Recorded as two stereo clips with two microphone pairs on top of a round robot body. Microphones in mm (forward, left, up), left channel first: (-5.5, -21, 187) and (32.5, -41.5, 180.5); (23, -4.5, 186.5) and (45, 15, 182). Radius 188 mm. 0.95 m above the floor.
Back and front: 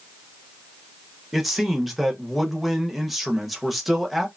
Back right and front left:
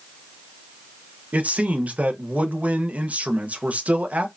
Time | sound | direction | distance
1.3 | a man speaking | 50° left | 0.7 m